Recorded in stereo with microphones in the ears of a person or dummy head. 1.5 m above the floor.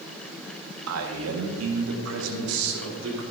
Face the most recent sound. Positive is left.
turn(degrees=-85)